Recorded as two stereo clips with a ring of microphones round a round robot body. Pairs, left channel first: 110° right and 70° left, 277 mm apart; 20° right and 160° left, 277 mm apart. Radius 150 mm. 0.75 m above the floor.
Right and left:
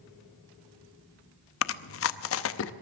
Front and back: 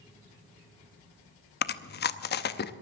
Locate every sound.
1.6 s chewing: 75° right, 0.7 m